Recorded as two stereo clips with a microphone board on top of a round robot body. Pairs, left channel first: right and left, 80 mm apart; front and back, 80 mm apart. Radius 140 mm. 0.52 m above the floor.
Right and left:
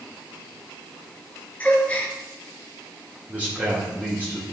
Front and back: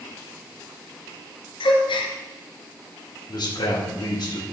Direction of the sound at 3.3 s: 15° left.